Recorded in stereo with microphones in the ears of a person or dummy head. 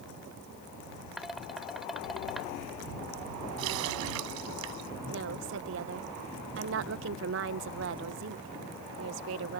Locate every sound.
1.2 s dishes clattering: 5° right (ahead or behind)
3.6 s a running tap: 80° right
5.1 s a woman speaking: 45° right (ahead or behind)